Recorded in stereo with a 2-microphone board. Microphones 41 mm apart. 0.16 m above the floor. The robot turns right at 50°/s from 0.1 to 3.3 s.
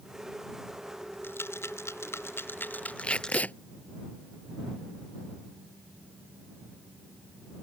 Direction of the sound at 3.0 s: 25° left (ahead or behind).